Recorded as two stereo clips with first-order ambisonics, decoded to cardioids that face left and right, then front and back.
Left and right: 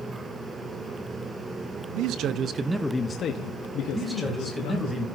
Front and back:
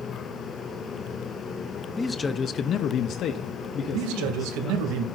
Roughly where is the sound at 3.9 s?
Behind.